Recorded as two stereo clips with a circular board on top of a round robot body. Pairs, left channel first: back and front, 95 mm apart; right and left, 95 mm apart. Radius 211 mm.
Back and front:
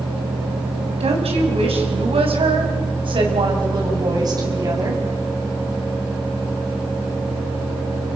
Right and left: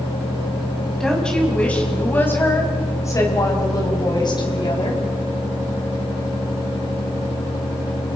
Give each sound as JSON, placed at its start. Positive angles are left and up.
{"t": 1.0, "sound": "a woman speaking", "azimuth_deg": -5, "distance_m": 5.0}